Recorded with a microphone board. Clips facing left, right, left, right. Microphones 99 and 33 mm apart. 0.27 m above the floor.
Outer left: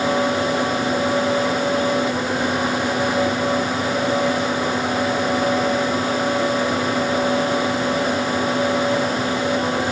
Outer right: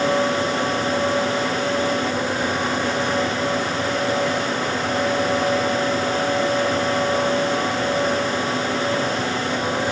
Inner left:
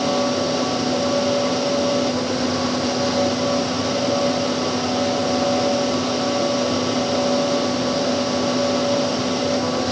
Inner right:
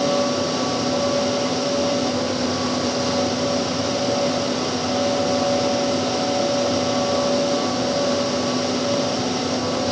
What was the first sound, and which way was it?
Only background noise.